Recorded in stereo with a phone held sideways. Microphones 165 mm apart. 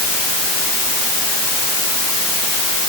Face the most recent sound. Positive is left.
No sound to turn to.